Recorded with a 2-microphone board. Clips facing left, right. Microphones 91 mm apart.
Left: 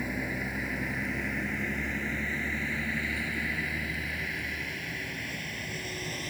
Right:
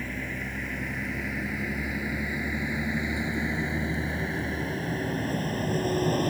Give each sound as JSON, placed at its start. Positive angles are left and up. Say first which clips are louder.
{"t": 0.0, "sound": "a vehicle", "louder": "left 1 dB", "side_deg": 10}